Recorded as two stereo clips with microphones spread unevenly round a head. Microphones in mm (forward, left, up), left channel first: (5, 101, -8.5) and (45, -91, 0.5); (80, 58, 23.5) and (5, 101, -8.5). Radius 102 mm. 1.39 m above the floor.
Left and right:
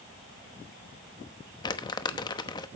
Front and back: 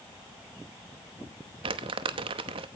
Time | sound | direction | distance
1.6 | crumpling | 165° left | 0.9 m